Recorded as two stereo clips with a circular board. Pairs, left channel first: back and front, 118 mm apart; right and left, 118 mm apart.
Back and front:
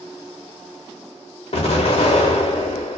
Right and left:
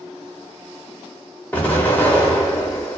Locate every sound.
1.5 s an explosion: 165° right, 0.7 m